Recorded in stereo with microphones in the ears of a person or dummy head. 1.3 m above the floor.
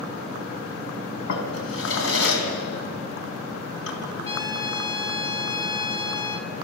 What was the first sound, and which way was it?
A drawer, 75° left (ahead or behind).